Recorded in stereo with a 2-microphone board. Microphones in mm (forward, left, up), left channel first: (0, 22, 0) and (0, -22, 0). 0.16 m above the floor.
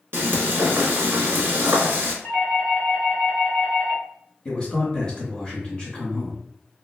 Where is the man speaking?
20° left (ahead or behind), 1.4 m.